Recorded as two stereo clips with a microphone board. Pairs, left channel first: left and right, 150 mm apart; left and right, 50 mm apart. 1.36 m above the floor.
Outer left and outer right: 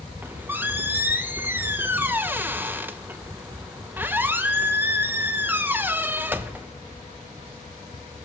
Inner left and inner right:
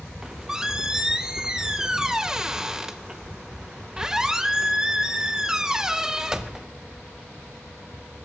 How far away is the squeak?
About 0.8 m.